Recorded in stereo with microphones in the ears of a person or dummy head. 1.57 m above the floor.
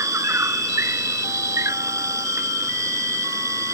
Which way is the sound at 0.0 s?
20° right (ahead or behind).